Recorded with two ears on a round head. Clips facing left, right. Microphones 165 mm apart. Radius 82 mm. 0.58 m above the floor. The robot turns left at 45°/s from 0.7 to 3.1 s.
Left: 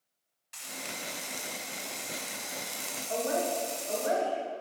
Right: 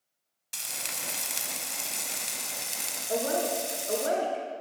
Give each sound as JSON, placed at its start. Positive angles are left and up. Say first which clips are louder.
{"t": 0.5, "sound": "frying", "louder": "left 2 dB", "azimuth_deg": -65, "distance_m": 0.9}
{"t": 3.1, "sound": "a woman speaking", "louder": "right 2 dB", "side_deg": -40, "distance_m": 1.0}